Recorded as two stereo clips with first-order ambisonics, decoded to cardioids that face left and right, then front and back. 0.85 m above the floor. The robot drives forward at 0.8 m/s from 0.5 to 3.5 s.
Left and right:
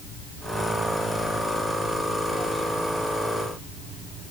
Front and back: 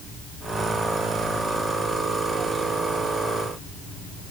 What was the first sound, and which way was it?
Only background noise.